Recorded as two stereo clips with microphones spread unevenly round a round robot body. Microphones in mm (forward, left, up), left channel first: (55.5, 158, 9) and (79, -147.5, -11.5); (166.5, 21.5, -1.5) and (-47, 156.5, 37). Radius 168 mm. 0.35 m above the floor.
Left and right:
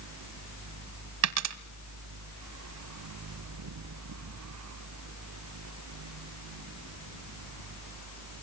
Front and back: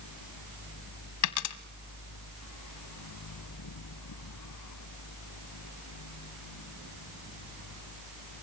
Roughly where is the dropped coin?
Ahead right.